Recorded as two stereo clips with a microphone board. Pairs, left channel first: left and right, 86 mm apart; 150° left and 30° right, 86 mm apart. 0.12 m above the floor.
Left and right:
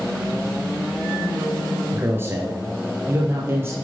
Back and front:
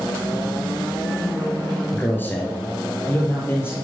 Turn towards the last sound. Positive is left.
turn(degrees=-145)